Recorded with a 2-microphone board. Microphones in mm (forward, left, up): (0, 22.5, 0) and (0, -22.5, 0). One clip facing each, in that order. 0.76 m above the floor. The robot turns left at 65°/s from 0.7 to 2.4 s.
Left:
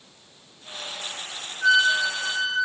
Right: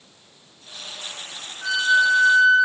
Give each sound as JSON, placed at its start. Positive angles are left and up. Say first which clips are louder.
{"t": 1.6, "sound": "a flute", "louder": "right 1 dB", "azimuth_deg": 160, "distance_m": 1.2}